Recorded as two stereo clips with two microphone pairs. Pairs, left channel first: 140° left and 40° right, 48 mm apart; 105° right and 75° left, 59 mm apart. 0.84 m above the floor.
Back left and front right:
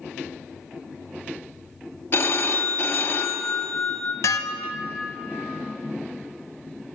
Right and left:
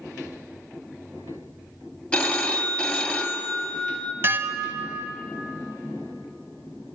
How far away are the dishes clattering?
About 0.5 m.